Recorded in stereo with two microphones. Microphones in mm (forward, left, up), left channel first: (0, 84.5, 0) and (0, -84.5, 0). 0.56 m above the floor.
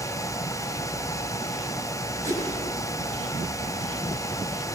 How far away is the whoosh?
About 6 m.